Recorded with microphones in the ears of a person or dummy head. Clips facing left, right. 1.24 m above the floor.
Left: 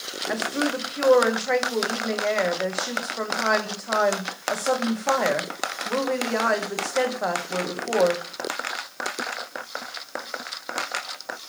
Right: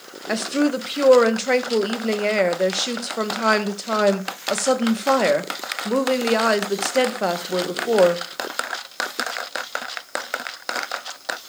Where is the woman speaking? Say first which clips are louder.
Right 6 dB; 45° right (ahead or behind), 1.1 m.